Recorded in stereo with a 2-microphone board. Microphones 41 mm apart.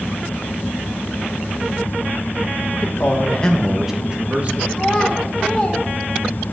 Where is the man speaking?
60° left (ahead or behind), 1.4 m; by 4.6 s 35° right (ahead or behind), 2.0 m.